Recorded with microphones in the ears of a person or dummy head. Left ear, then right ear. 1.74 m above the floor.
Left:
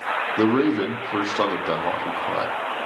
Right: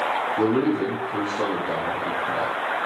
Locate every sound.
0.4 s a man speaking: 60° left (ahead or behind), 0.6 m